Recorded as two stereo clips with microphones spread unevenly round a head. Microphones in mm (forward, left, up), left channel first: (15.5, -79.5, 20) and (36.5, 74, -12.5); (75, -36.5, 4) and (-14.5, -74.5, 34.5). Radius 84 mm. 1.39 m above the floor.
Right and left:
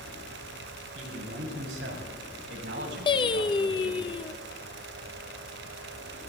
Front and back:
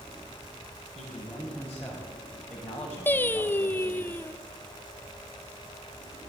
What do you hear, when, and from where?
0.9 s a man speaking: 115° left, 8 m; by 4.1 s 100° left, 5.5 m
3.1 s singing: 55° right, 0.8 m